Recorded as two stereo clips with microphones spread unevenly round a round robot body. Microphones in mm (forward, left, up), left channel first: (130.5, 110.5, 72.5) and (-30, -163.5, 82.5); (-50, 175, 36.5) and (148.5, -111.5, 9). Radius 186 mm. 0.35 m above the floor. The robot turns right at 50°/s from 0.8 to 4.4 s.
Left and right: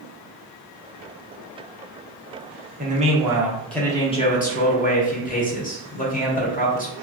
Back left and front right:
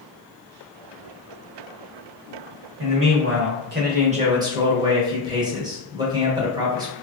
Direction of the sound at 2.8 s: 70° right.